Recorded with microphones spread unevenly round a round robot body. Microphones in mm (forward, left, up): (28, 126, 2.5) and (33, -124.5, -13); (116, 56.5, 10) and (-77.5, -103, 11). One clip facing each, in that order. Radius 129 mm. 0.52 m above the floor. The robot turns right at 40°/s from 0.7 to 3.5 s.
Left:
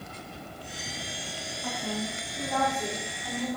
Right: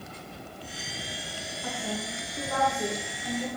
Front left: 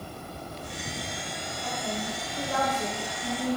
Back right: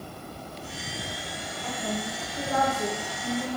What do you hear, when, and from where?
1.6 s a woman speaking: 90° right, 5 m; by 3.6 s 15° right, 5 m